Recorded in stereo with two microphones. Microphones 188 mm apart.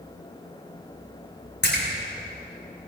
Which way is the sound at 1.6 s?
60° left (ahead or behind).